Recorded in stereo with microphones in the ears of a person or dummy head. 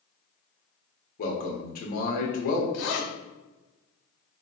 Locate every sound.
1.2 s a man speaking: 40° left (ahead or behind), 0.9 m
2.7 s a zipper: 60° left (ahead or behind), 1.0 m